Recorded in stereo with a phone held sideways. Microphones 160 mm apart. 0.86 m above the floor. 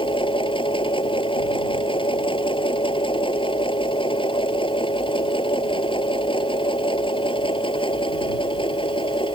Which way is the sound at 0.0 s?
30° left (ahead or behind).